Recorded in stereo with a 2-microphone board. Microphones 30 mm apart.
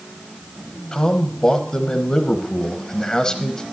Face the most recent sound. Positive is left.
turn(degrees=25)  # may be behind; listen again after turning